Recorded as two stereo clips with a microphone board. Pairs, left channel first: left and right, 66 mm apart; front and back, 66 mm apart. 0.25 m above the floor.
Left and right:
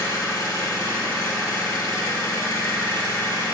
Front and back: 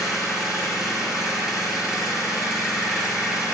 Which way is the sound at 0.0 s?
100° left.